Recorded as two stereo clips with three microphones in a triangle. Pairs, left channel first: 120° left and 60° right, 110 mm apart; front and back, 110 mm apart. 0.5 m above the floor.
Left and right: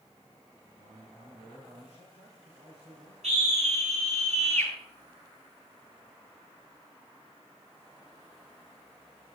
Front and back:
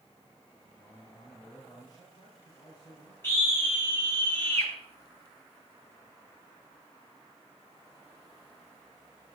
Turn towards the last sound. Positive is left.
turn(degrees=-70)